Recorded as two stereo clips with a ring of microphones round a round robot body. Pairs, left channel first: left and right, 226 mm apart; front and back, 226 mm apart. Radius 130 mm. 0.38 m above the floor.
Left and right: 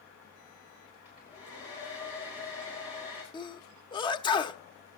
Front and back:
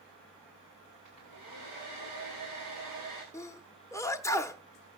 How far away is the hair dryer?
About 8 m.